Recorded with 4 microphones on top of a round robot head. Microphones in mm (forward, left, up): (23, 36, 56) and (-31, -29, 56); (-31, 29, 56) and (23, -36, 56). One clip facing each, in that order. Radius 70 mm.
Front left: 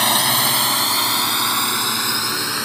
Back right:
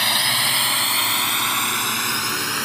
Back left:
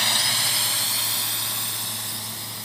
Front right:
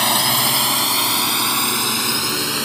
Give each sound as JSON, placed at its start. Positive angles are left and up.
{"t": 0.0, "sound": "a drone", "azimuth_deg": -5}